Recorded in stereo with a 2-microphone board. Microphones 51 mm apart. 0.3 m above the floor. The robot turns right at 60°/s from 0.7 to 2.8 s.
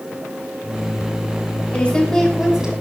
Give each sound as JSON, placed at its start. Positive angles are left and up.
{"t": 1.7, "sound": "a woman speaking", "azimuth_deg": 145, "distance_m": 2.5}